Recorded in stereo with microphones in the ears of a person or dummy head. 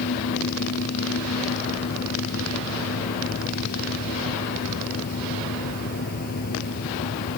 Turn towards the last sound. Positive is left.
turn(degrees=50)  # may be behind; listen again after turning